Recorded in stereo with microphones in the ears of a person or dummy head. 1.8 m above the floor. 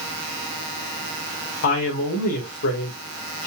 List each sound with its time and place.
1.6 s a woman speaking: 60° left (ahead or behind), 1.7 m